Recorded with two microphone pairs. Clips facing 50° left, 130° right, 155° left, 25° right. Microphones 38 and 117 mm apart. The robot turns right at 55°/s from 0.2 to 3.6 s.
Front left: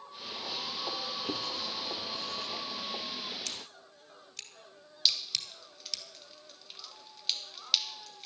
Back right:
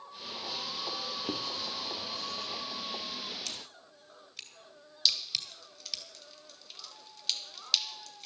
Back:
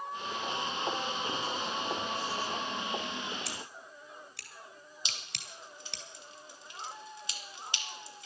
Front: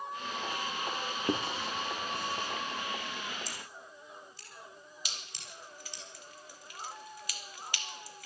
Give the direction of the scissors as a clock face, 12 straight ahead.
7 o'clock.